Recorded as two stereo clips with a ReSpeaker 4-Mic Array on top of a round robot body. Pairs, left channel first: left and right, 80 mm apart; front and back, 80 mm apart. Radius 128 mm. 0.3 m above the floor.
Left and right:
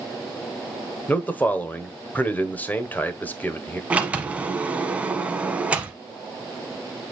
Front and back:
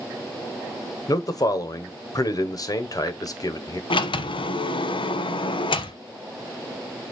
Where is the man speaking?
25° left, 1.5 m.